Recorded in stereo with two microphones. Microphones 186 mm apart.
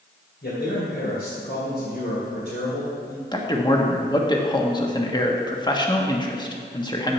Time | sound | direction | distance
0.4 | a man speaking | 70° left (ahead or behind) | 3 m
3.3 | a man speaking | 25° left (ahead or behind) | 1.3 m